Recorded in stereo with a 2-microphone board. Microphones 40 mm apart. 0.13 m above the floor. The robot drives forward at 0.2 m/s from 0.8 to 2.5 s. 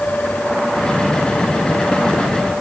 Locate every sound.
Only background noise.